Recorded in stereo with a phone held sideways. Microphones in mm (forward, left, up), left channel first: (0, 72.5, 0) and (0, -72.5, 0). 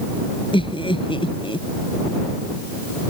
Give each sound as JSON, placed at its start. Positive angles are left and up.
{"t": 0.5, "sound": "laughter", "side_deg": 40}